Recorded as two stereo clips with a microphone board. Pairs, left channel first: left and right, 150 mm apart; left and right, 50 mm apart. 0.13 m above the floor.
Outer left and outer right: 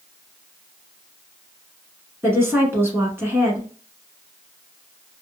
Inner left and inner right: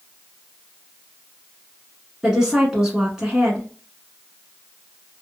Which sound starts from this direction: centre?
A woman speaking, at 2.2 s.